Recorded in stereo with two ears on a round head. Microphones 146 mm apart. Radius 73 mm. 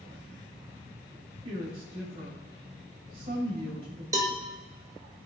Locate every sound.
1.4 s a woman speaking: 35° right (ahead or behind), 3.5 m
4.1 s a cowbell: 20° right (ahead or behind), 1.1 m